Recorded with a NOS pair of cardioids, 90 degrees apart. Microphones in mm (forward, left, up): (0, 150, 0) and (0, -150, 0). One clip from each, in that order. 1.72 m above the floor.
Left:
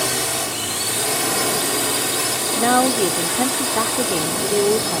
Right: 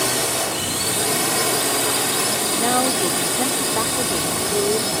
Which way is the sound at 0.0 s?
Straight ahead.